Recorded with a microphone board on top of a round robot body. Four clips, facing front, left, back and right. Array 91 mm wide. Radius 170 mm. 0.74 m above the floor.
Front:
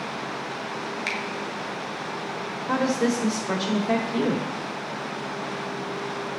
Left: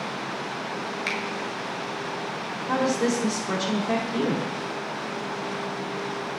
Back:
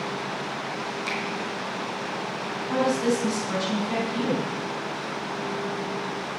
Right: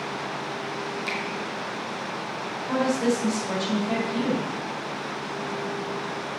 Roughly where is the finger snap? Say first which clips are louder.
Even, back 1 dB; ahead left.